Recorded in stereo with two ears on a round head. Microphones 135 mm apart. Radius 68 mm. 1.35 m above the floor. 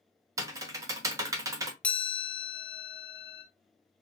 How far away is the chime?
About 1.0 m.